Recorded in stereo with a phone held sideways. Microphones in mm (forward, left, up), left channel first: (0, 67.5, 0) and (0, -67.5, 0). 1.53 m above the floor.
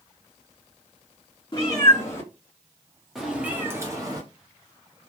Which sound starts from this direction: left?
A cat meowing, at 1.5 s.